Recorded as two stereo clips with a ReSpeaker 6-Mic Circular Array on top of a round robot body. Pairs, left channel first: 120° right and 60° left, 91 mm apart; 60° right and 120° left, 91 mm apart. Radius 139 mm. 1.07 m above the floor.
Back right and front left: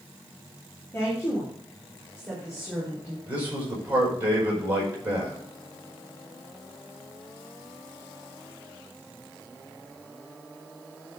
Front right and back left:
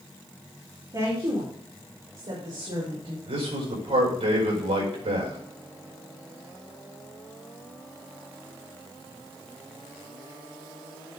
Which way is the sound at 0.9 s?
170° left.